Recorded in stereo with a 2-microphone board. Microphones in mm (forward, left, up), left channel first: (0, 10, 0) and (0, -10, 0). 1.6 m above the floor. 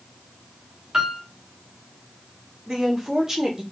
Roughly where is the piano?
Right.